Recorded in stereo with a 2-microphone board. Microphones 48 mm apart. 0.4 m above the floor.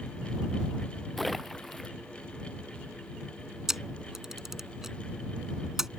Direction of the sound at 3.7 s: 10° right (ahead or behind).